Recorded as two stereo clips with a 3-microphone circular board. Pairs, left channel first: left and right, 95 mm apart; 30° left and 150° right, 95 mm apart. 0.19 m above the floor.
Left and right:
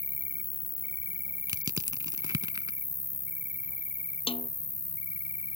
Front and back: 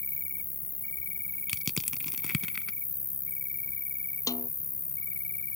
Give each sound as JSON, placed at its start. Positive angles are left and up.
{"t": 0.0, "sound": "an insect", "azimuth_deg": -30}
{"t": 1.5, "sound": "crushing", "azimuth_deg": -55}
{"t": 4.3, "sound": "a snare drum", "azimuth_deg": 80}